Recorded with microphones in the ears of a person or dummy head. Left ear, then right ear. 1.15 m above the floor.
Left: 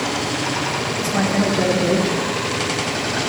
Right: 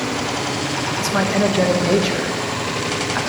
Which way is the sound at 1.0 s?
35° right (ahead or behind).